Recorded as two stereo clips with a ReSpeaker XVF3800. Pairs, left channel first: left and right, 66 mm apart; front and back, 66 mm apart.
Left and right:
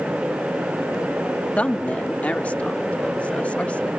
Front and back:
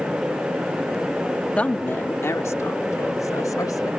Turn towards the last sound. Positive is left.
turn(degrees=20)